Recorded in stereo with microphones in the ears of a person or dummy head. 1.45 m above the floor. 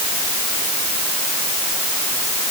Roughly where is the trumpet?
No trumpet in this recording.